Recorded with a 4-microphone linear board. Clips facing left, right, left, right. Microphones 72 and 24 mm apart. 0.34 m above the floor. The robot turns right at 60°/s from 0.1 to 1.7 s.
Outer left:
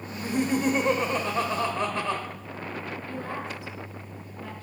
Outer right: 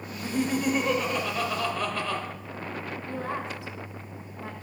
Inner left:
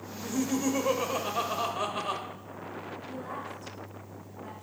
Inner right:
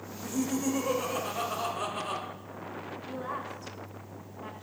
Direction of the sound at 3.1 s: 25° right (ahead or behind).